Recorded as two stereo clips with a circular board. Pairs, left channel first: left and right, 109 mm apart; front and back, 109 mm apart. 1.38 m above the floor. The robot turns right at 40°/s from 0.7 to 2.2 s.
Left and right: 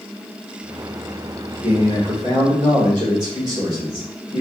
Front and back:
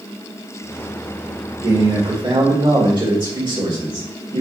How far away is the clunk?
No clunk in this recording.